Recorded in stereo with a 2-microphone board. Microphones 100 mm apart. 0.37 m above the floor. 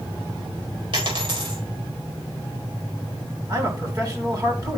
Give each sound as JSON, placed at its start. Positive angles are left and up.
{"t": 0.9, "sound": "a dropped coin", "side_deg": -60, "distance_m": 5.0}
{"t": 3.5, "sound": "a man speaking", "side_deg": -40, "distance_m": 3.0}